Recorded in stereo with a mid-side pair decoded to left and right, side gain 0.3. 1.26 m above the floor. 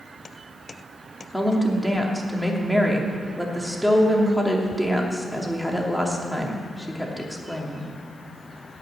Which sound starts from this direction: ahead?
A woman speaking, at 1.3 s.